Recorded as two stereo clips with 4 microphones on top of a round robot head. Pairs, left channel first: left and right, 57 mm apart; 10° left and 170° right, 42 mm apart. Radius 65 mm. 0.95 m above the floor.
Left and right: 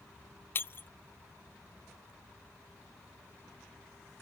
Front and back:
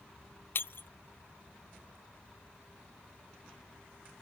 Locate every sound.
0.6 s breaking glass: 40° left